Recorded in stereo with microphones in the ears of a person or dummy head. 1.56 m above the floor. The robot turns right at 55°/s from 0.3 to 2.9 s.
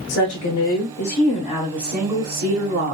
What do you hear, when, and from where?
0.1 s a woman speaking: 90° left, 1.4 m; by 2.9 s 125° right, 1.4 m